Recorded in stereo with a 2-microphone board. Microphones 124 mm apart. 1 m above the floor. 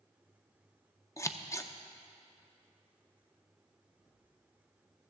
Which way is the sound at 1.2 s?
25° left (ahead or behind).